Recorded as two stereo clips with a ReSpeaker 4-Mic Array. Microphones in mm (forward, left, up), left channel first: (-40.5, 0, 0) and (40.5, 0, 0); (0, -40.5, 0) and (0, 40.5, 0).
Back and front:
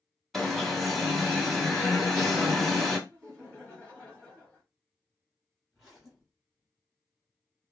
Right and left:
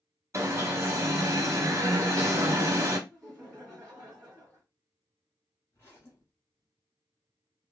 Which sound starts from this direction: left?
An alarm, at 0.3 s.